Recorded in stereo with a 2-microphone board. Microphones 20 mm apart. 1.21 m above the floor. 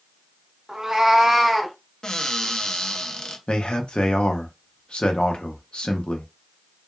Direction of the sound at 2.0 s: 40° left (ahead or behind).